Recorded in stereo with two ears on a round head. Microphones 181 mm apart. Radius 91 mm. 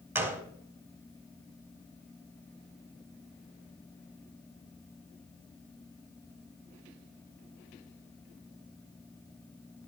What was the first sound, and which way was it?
A gunshot, 10° right (ahead or behind).